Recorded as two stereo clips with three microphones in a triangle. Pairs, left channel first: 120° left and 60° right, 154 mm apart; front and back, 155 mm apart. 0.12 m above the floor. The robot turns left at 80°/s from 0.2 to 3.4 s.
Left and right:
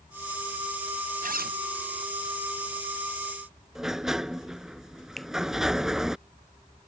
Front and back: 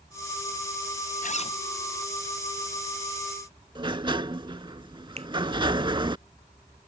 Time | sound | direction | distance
1.2 | a zipper | 30° right | ?
3.8 | a sliding door | 145° right | ?
5.2 | a finger snap | 155° right | ?